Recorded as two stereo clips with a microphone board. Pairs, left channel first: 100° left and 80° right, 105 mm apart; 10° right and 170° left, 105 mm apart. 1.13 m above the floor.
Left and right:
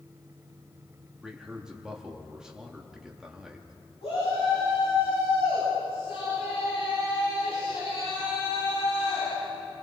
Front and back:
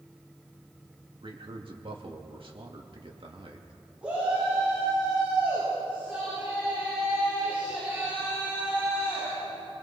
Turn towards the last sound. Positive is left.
turn(degrees=95)